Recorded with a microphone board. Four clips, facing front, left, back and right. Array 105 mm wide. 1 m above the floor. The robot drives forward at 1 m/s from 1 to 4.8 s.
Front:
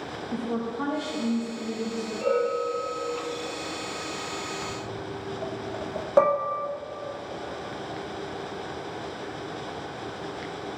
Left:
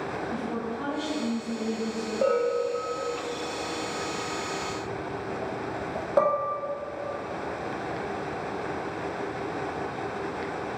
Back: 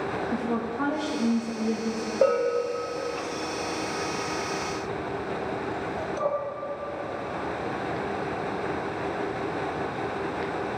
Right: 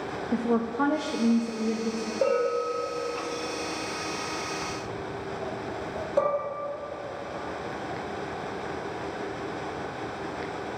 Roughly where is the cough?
No cough in this recording.